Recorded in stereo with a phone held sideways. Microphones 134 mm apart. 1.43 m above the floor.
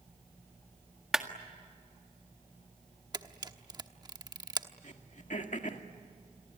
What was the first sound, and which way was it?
A clap, 5° right (ahead or behind).